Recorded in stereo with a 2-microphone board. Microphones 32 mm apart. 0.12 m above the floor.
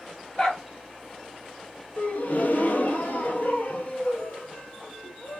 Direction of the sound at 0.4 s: 30° left (ahead or behind).